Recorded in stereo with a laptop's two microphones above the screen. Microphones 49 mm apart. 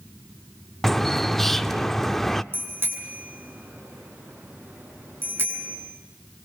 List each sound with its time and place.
0.8 s a bird: 5° left (ahead or behind), 0.5 m
2.5 s a bicycle bell: 50° right (ahead or behind), 7.5 m